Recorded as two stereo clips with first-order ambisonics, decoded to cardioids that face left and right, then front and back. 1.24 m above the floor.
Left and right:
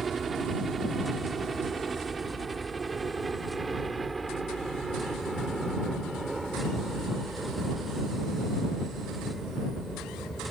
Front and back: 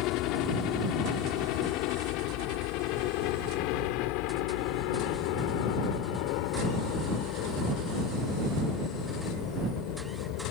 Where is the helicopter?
20° right; by 10.5 s straight ahead.